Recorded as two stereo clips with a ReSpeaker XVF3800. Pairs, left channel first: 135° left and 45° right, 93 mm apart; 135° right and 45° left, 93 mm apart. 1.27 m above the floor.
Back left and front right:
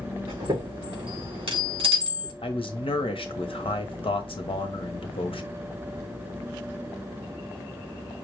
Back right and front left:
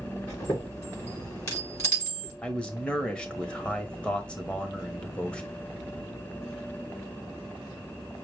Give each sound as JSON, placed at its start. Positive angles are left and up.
{"t": 0.3, "sound": "a chime", "azimuth_deg": -75, "distance_m": 3.5}
{"t": 2.4, "sound": "a man speaking", "azimuth_deg": 145, "distance_m": 0.9}